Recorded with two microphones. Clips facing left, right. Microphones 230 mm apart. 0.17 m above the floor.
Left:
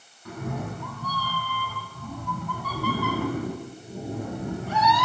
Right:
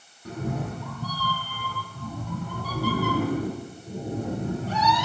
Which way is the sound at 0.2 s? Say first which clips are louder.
Right 2 dB; 35° right (ahead or behind).